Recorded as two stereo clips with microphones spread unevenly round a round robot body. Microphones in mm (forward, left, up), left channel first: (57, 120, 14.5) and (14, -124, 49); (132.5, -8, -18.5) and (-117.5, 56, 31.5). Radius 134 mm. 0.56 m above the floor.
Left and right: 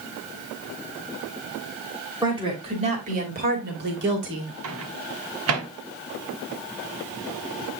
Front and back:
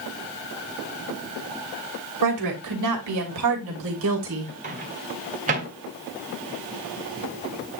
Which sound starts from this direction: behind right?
A microwave, at 4.6 s.